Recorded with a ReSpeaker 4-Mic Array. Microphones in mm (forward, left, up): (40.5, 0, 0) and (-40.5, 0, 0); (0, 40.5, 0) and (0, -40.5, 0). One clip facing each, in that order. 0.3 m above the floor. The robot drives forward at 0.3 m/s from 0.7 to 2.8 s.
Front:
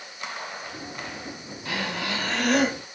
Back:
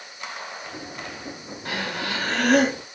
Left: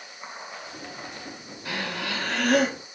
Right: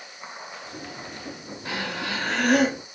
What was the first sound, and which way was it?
Breathing, 155° right.